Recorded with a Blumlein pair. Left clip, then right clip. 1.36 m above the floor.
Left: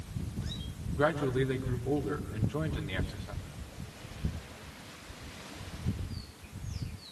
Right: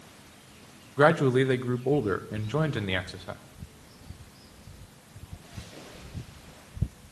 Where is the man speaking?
30° right, 2.0 m.